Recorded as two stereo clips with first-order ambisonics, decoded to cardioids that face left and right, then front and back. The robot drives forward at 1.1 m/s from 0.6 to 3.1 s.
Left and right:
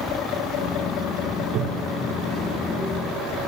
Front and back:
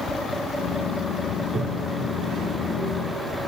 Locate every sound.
1.4 s a toilet flushing: 105° right, 0.7 m; by 3.3 s 165° right, 2 m